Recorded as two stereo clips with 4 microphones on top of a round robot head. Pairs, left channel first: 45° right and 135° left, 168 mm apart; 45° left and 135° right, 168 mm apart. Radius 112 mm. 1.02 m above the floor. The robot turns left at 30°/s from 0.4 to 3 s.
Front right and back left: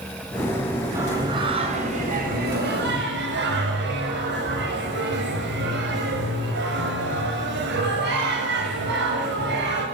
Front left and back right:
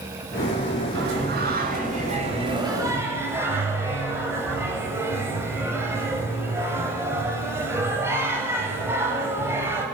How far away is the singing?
About 7.5 m.